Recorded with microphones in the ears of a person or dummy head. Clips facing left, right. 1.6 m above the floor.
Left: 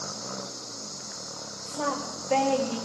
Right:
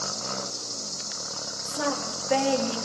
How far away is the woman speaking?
About 2.5 m.